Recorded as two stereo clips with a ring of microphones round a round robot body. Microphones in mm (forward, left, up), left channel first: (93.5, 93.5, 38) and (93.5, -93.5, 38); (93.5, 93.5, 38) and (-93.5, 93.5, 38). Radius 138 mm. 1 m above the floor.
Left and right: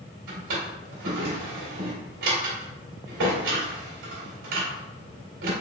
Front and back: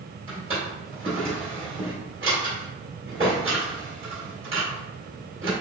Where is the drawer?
110° right, 2 m.